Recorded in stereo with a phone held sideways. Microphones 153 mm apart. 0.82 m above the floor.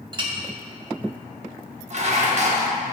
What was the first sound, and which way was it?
A clink, 30° right (ahead or behind).